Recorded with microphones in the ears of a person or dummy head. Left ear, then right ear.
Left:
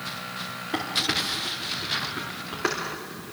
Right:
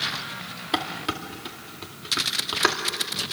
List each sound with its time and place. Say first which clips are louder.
0.7 s dishes clattering: left 2 dB; 35° right (ahead or behind), 2.5 m